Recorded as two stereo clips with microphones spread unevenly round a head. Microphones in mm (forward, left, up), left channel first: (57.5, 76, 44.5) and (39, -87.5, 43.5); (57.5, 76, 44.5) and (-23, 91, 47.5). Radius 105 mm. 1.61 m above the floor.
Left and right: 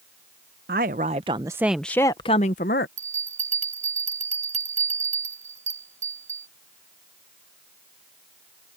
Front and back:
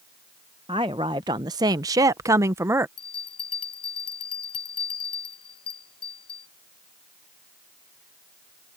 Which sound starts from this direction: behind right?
A woman speaking, at 0.7 s.